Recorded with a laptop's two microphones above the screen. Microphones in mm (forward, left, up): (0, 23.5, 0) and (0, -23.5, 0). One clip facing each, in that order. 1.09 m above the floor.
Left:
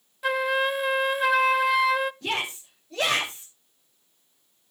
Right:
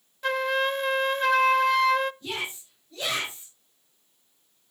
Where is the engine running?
I don't hear an engine running.